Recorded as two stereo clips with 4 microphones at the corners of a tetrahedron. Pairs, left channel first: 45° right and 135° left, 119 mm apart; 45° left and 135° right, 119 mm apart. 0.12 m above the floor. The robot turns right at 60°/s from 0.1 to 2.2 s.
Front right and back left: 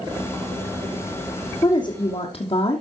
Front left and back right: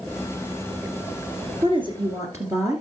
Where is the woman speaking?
110° right, 2.5 m; by 2.8 s 75° right, 2.5 m.